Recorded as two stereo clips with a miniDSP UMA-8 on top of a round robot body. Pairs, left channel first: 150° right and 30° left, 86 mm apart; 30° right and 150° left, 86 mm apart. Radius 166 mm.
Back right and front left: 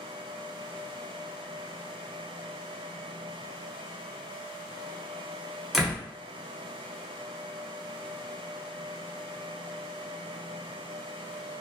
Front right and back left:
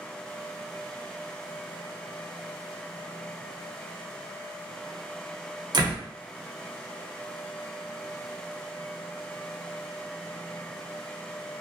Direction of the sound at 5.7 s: 115° left.